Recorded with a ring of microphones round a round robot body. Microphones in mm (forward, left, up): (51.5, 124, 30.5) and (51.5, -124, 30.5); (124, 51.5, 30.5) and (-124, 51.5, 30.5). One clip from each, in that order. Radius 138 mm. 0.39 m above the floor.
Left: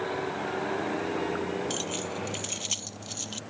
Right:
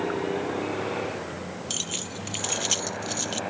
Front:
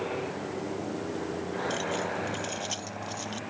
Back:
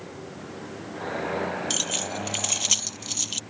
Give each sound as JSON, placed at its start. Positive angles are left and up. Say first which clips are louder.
{"t": 1.7, "sound": "keys jangling", "louder": "right 1 dB, back 2 dB", "azimuth_deg": -175}